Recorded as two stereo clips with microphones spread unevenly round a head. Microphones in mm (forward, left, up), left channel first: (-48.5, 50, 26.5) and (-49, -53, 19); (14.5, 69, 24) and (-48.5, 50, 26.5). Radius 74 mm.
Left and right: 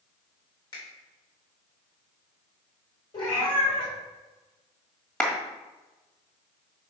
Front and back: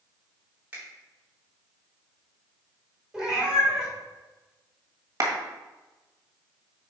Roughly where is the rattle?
I don't hear a rattle.